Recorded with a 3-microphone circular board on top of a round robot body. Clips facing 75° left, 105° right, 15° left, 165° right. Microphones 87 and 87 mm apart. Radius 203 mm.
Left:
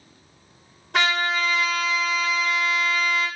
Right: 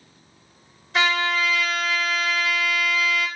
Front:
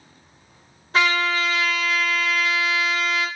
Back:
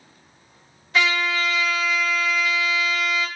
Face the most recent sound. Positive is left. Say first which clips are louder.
# right 1 dB, front 1 dB
turn(degrees=65)